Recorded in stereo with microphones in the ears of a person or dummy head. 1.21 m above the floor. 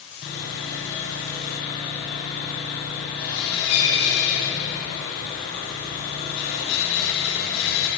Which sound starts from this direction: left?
Sawing, at 0.2 s.